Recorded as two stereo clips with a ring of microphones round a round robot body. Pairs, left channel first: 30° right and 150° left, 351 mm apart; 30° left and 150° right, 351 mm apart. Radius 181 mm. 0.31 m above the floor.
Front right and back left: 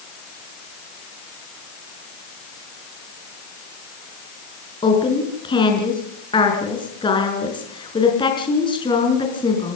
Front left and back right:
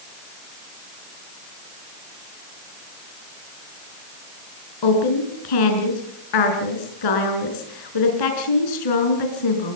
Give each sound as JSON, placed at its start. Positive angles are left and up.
{"t": 4.8, "sound": "a woman speaking", "azimuth_deg": 45, "distance_m": 5.0}